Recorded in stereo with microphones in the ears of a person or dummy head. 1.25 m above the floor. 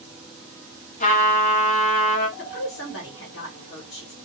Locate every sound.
1.0 s a trumpet: 35° left (ahead or behind), 0.7 m
2.4 s a woman speaking: 65° left (ahead or behind), 1.3 m